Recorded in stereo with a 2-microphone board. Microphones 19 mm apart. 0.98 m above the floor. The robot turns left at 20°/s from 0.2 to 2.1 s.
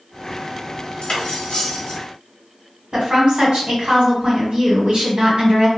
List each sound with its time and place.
1.0 s cutlery clinking: 70° left (ahead or behind), 0.8 m; by 2.0 s 65° left (ahead or behind), 0.8 m
2.9 s a woman speaking: 65° right (ahead or behind), 1.3 m